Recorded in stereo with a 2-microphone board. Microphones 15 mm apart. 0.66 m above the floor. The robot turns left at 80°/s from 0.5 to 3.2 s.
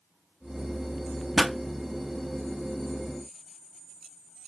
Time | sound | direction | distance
1.4 | a pop | 5° left (ahead or behind) | 0.7 m